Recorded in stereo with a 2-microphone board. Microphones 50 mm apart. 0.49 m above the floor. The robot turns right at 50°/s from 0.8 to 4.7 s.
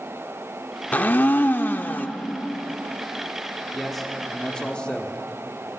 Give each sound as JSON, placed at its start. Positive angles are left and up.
{"t": 0.9, "sound": "a blender", "azimuth_deg": 60, "distance_m": 0.6}
{"t": 3.7, "sound": "a man speaking", "side_deg": 0, "distance_m": 1.2}